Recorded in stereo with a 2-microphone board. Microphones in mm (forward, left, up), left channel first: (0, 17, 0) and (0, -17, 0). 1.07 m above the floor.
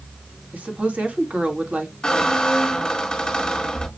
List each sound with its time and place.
0.5 s a woman speaking: 50° right (ahead or behind), 1.3 m
2.0 s a squeak: 25° left (ahead or behind), 1.2 m